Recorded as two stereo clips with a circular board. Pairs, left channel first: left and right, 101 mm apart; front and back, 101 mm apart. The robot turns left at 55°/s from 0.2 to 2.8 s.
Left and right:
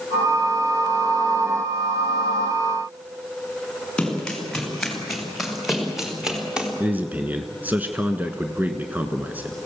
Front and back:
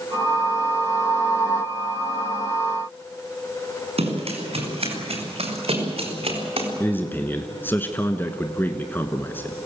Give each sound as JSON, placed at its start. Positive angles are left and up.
{"t": 4.0, "sound": "running footsteps", "azimuth_deg": 175, "distance_m": 9.0}
{"t": 6.8, "sound": "a man speaking", "azimuth_deg": -40, "distance_m": 1.1}